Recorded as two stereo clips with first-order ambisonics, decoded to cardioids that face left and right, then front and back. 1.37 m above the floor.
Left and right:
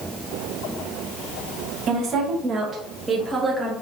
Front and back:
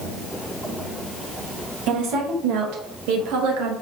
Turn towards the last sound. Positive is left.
turn(degrees=175)